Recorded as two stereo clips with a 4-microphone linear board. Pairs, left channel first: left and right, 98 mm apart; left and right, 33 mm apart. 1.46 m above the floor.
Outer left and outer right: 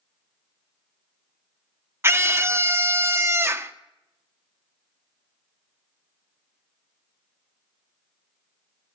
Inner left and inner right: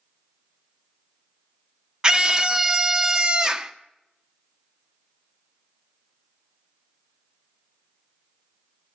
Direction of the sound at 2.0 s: 30° right (ahead or behind).